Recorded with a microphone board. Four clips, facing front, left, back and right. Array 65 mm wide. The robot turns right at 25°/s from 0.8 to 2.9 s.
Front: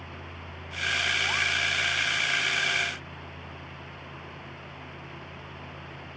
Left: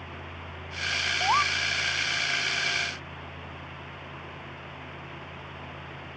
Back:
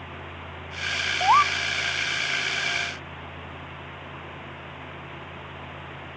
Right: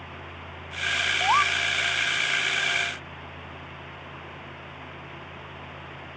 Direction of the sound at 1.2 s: Straight behind.